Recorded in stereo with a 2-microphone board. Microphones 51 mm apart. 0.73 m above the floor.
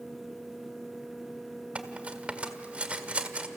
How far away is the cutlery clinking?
About 1.5 m.